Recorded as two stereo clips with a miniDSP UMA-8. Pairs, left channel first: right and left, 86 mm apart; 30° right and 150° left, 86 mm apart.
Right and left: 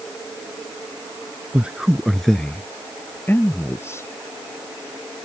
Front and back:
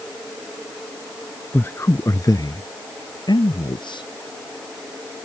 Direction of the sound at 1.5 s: 25° left.